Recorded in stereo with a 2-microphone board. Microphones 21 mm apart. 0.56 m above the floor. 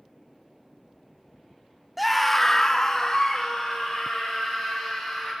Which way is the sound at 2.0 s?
Centre (ahead or behind).